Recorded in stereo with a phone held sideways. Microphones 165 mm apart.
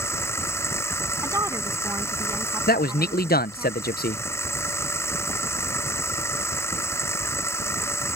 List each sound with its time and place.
0.0 s a machine running: 15° left (ahead or behind)
1.2 s a woman speaking: 20° right (ahead or behind)
2.7 s a man speaking: 70° left (ahead or behind)